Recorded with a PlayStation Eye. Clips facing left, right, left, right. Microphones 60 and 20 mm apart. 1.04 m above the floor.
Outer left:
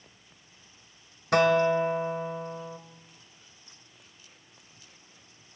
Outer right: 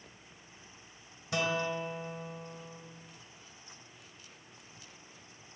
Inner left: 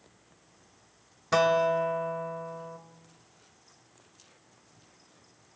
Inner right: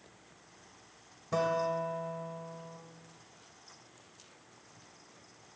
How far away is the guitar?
About 1.6 m.